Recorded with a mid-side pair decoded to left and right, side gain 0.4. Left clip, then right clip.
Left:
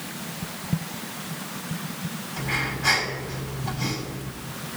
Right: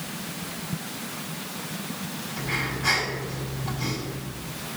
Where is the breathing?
25° left, 6 m.